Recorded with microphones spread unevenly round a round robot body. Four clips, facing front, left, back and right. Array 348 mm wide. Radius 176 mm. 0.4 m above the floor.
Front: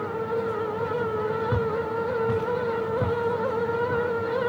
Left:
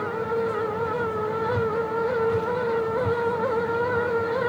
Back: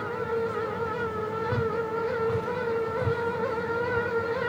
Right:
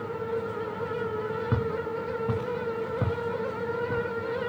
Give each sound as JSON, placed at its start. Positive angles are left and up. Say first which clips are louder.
{"t": 1.5, "sound": "footsteps", "louder": "left 5 dB, front 2 dB", "azimuth_deg": -80, "distance_m": 6.0}